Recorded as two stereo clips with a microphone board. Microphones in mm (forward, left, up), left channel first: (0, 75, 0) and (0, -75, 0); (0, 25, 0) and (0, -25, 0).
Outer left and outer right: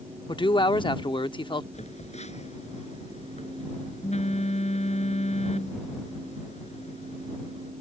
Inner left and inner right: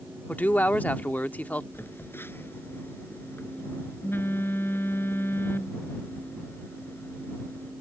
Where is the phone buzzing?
50° left (ahead or behind).